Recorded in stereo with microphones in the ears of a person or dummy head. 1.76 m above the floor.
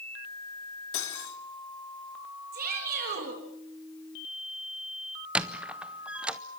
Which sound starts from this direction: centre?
A squeak, at 5.3 s.